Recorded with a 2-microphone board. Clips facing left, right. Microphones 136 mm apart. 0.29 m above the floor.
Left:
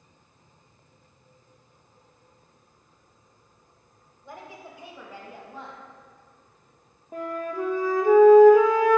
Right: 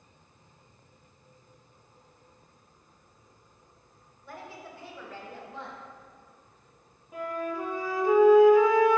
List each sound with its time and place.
4.2 s a woman speaking: 20° left (ahead or behind), 1.0 m; by 5.8 s 10° left (ahead or behind), 1.7 m
7.1 s a flute: 50° left (ahead or behind), 1.0 m